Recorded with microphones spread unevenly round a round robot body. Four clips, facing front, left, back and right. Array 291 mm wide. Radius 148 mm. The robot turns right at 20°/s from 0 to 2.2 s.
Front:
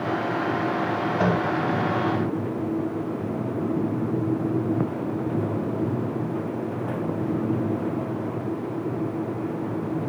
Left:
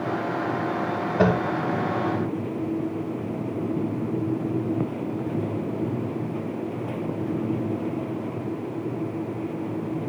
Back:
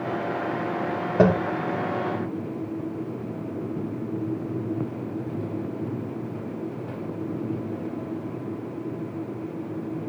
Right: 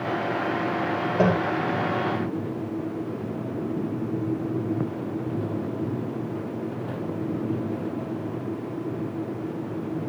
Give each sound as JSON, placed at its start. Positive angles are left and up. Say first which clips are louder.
{"t": 1.2, "sound": "tapping", "louder": "left 1 dB, back 6 dB", "azimuth_deg": -175, "distance_m": 4.5}